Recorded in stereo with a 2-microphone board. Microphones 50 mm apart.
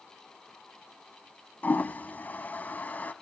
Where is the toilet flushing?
35° left (ahead or behind), 0.6 m.